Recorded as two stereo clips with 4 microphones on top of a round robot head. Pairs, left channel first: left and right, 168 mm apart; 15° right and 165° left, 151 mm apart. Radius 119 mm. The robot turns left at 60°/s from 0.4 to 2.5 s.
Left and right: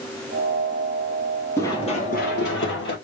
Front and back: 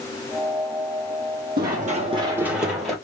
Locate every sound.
1.6 s running footsteps: 165° left, 2 m; by 3.0 s 75° left, 2 m